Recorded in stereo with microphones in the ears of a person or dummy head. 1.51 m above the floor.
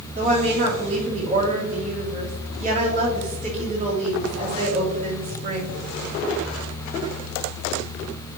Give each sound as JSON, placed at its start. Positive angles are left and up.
{"t": 0.1, "sound": "a woman speaking", "side_deg": -35, "distance_m": 3.0}